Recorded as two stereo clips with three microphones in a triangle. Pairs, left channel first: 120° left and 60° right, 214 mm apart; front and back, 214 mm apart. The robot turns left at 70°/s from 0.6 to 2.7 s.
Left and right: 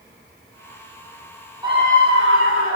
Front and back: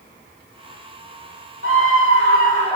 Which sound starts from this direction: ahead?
A scream, at 1.6 s.